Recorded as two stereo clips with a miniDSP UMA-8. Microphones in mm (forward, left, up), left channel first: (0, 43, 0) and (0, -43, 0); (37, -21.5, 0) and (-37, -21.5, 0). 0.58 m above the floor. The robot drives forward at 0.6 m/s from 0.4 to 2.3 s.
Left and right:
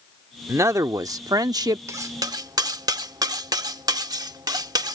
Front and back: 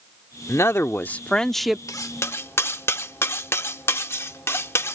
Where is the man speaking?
45° right; by 1.8 s 100° right.